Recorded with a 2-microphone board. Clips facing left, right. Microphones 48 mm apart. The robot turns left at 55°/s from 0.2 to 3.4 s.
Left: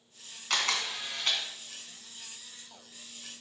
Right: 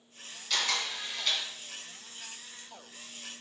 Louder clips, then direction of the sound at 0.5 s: Left 1 dB; 95° left.